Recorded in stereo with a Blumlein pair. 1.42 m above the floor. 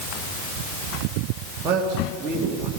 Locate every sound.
1.6 s a man speaking: 25° right, 2.5 m